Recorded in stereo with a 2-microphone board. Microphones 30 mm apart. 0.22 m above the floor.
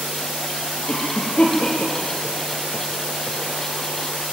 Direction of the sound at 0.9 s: 40° left (ahead or behind).